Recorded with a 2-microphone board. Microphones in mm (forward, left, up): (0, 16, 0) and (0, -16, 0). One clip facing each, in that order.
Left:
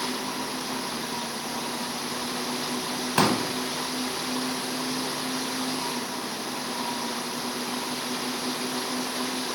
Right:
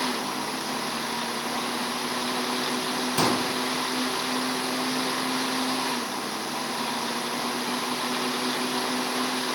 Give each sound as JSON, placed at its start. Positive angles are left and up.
{"t": 3.2, "sound": "a pop", "side_deg": 65, "distance_m": 0.6}